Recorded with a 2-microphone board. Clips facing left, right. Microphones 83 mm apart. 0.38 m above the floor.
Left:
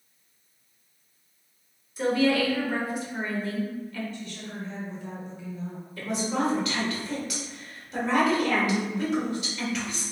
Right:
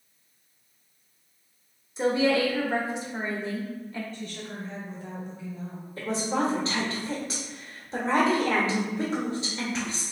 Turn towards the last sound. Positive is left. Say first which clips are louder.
# right 1 dB
turn(degrees=-30)  # may be behind; listen again after turning